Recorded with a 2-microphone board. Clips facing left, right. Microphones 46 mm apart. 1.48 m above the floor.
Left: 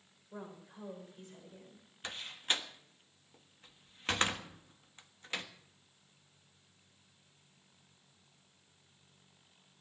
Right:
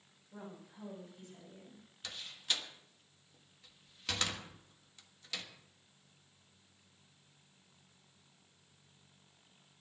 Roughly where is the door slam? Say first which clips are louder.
Left 3 dB; left.